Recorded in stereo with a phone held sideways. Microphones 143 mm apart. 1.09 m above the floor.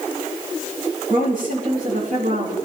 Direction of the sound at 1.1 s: 85° right.